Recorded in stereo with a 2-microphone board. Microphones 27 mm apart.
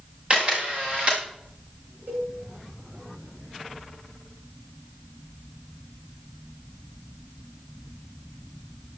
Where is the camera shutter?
40° right (ahead or behind), 7 m.